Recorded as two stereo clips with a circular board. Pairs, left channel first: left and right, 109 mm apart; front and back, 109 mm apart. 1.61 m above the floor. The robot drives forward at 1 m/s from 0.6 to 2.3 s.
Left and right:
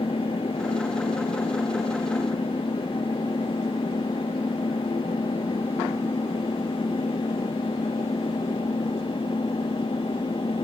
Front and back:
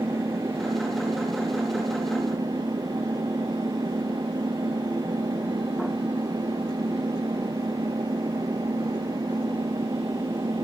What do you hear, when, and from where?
0.0 s an engine running: 120° left; by 10.7 s 125° left